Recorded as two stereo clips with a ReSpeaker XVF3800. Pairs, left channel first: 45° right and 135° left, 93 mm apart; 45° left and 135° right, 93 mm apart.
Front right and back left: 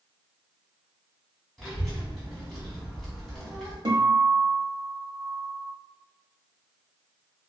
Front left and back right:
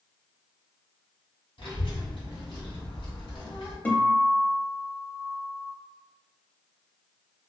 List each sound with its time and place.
1.6 s a child speaking: 45° left, 1.4 m
3.9 s a guitar: 115° left, 0.6 m